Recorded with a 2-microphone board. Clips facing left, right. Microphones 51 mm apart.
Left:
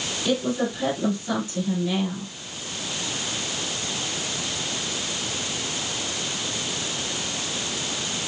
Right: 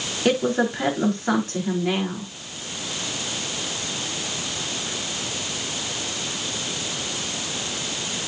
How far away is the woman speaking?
About 7.5 m.